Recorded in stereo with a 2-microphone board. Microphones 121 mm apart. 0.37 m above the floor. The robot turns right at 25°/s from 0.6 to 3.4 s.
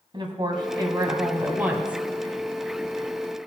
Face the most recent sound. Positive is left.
turn(degrees=25)